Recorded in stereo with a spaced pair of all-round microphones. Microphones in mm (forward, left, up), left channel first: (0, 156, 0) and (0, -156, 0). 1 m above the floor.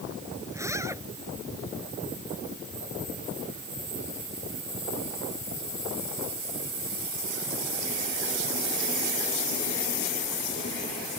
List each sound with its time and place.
0.5 s a zipper: 10° right (ahead or behind)